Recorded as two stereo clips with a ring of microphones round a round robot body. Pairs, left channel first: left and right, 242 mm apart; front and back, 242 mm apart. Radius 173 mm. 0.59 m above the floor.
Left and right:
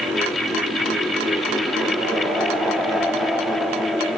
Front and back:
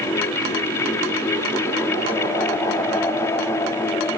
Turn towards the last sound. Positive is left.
No sound to turn to.